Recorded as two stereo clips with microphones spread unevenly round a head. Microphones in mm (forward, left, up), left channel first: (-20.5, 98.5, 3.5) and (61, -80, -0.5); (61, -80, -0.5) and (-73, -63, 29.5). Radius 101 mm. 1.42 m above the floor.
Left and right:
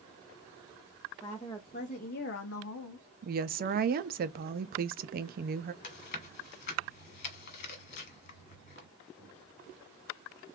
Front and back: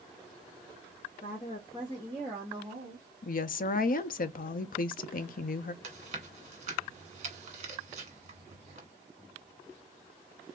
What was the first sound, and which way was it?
A woman speaking, 40° left.